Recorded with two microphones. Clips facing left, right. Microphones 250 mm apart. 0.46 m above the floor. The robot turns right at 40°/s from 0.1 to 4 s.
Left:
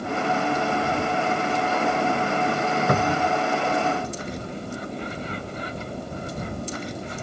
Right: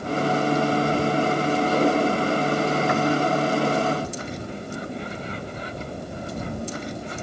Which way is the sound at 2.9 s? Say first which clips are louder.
Right 2 dB; 45° left (ahead or behind).